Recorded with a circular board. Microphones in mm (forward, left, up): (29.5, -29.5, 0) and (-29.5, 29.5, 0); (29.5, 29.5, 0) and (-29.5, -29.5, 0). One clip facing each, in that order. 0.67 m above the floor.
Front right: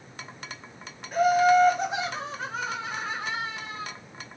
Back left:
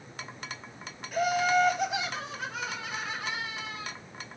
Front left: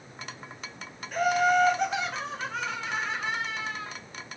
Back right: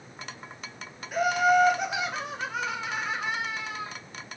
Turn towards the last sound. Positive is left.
turn(degrees=-55)